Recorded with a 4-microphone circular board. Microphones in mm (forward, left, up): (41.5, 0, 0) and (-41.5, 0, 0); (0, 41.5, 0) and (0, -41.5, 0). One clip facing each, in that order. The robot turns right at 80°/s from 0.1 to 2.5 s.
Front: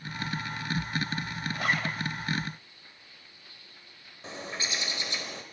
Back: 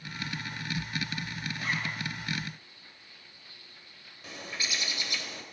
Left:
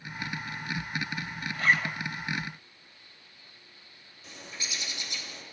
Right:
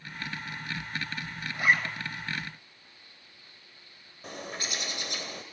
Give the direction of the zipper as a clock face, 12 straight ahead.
1 o'clock.